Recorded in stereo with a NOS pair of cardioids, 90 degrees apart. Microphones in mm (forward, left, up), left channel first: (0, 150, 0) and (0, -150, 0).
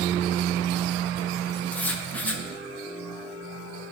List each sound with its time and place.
1.7 s writing: 5° left, 0.7 m